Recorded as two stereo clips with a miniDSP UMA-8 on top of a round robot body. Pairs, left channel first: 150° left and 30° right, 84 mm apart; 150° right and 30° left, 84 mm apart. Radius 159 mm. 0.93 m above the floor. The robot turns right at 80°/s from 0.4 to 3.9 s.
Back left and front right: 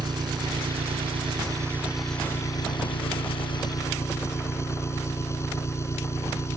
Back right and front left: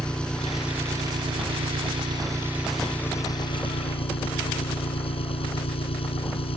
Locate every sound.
0.0 s an engine running: 70° right; by 6.6 s 150° right